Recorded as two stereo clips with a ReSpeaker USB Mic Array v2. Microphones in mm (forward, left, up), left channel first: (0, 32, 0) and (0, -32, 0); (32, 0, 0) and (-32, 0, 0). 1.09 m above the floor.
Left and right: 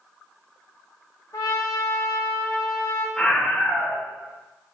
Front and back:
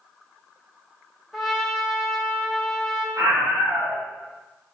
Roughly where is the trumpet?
Left.